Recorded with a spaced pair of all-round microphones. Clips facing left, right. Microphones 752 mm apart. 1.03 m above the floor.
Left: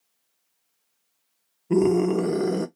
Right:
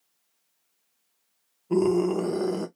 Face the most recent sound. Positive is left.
turn(degrees=55)  # may be behind; listen again after turning